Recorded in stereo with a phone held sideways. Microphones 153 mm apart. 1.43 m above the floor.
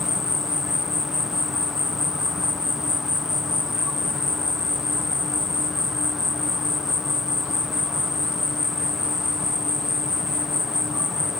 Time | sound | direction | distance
0.0 | an insect | 5° right (ahead or behind) | ?